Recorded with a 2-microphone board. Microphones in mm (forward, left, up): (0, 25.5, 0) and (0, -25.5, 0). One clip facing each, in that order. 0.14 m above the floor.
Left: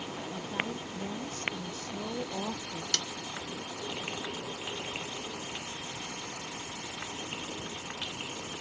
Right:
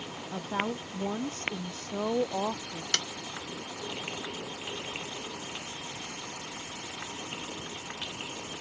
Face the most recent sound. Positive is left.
turn(degrees=-35)  # may be behind; listen again after turning